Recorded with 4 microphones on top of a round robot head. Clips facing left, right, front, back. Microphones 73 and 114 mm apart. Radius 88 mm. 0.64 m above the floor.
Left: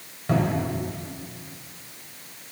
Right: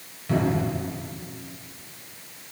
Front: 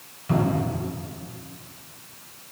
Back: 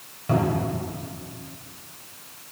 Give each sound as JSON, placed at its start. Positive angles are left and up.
{"t": 0.3, "sound": "a cupboard door", "azimuth_deg": 135, "distance_m": 2.5}